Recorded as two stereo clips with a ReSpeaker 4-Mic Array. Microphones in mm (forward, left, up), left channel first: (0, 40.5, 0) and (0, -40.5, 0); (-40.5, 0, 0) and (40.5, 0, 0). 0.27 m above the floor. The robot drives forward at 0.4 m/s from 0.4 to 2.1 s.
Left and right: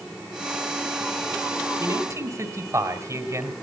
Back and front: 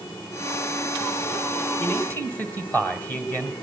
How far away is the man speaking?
About 2 m.